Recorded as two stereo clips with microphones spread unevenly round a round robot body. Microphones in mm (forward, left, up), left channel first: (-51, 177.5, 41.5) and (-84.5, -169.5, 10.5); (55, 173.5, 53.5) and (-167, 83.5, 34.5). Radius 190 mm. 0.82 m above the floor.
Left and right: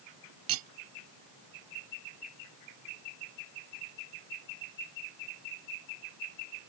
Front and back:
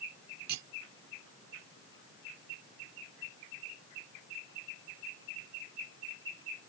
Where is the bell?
No bell in this recording.